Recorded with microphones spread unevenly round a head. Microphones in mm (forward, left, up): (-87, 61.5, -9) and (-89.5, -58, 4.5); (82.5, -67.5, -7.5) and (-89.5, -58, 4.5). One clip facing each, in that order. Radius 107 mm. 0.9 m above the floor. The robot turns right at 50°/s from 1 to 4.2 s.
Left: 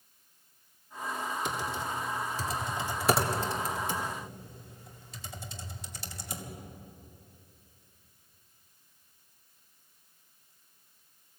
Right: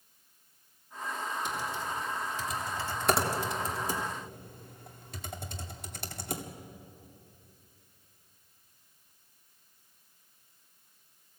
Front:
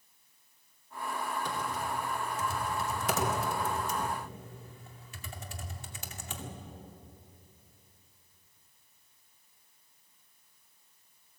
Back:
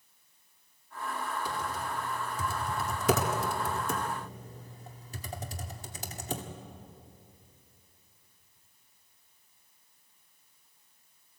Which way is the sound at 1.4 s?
95° left.